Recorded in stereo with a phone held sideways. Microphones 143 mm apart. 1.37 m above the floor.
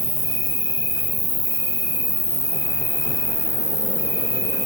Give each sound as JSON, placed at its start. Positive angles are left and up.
{"t": 0.0, "sound": "an insect", "side_deg": -25, "distance_m": 1.2}